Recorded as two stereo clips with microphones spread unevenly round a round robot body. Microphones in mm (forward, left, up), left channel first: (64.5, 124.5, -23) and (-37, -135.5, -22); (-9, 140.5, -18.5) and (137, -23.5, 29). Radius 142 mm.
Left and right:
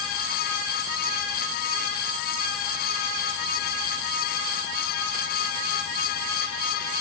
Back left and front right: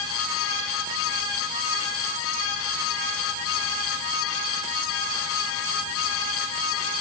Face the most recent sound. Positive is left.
No sound to turn to.